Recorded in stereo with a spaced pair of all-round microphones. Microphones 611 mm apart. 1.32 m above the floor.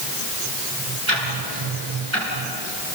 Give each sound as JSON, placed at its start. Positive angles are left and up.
{"t": 1.1, "sound": "ticking", "side_deg": -50, "distance_m": 7.0}